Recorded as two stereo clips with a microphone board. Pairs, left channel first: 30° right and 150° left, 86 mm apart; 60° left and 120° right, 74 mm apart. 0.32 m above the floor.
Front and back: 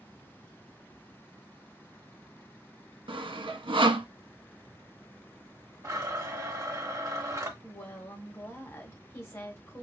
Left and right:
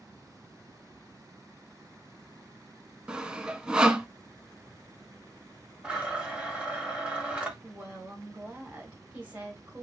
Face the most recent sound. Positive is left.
turn(degrees=-65)